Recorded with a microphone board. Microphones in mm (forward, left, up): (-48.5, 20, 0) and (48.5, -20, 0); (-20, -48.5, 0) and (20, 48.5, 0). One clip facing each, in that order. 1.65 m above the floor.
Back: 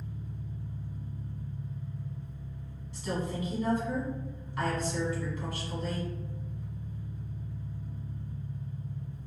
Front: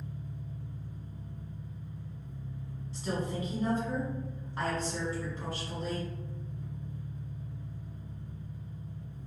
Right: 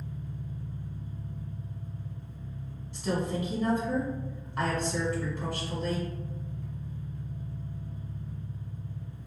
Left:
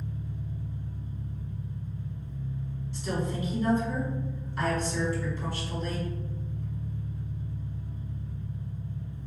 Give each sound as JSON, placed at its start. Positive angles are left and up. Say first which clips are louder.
{"t": 0.0, "sound": "an engine running", "louder": "back 1 dB, left 2 dB", "azimuth_deg": 85, "distance_m": 1.0}
{"t": 2.9, "sound": "a woman speaking", "louder": "even, right 2 dB", "azimuth_deg": -80, "distance_m": 1.8}